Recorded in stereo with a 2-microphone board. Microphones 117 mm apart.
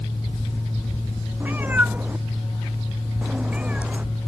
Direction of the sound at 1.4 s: 15° right (ahead or behind).